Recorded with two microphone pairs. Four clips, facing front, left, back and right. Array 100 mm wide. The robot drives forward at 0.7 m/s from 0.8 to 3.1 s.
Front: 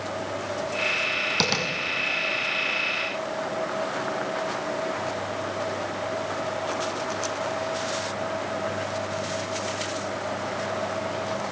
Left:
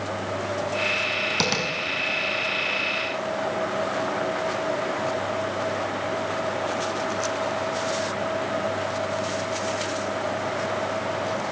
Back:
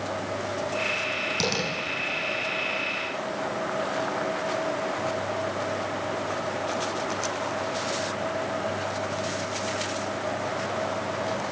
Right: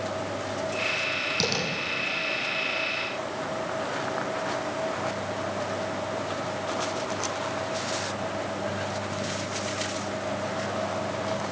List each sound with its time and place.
1.4 s tapping: 40° left, 6 m; by 1.7 s 45° left, 6 m